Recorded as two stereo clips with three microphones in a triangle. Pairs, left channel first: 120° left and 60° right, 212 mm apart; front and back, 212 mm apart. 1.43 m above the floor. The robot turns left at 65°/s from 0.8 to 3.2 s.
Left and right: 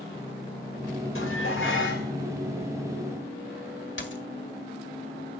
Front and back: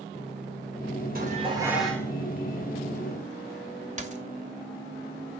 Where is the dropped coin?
130° left, 2 m.